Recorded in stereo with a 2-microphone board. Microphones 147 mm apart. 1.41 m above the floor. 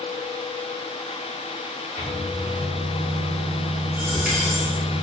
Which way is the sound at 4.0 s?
10° right (ahead or behind).